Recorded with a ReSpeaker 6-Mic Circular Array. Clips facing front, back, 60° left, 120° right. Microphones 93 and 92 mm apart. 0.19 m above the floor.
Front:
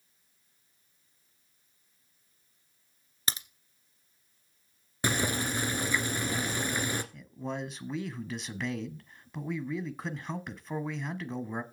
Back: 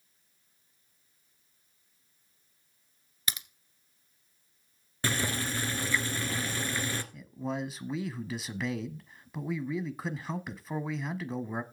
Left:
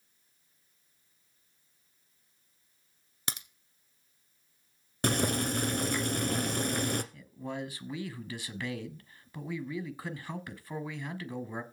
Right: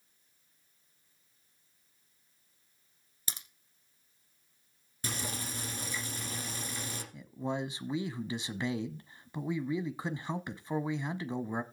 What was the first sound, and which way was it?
A crack, 55° left.